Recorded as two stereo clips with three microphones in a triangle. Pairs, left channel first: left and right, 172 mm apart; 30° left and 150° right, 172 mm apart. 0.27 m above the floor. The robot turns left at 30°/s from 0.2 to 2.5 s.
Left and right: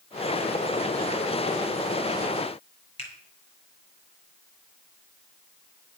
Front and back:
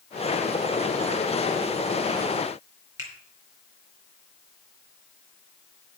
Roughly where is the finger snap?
Behind left.